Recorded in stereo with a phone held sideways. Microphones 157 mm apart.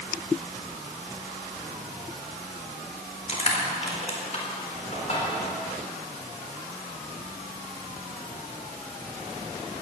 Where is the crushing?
45° left (ahead or behind), 4 m.